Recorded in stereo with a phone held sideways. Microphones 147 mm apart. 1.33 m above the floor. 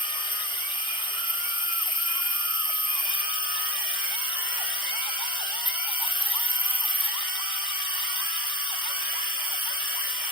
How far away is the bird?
I don't hear a bird.